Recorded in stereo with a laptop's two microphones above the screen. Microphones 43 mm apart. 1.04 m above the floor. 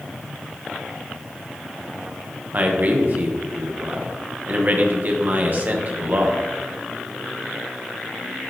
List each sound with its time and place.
2.5 s a man speaking: 40° right (ahead or behind), 1.0 m